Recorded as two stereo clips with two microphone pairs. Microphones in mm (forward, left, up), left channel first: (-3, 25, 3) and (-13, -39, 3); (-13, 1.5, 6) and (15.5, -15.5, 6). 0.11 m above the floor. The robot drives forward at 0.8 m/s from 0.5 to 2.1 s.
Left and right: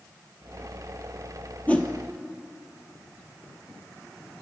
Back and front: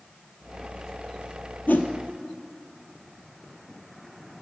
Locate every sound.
1.7 s a whoosh: 145° left, 0.8 m; by 1.9 s 155° left, 1.0 m